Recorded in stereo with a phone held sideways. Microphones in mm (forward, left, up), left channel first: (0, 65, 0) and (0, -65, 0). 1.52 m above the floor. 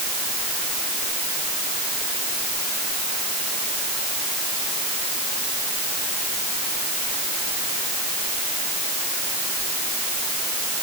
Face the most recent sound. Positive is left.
No sound to turn to.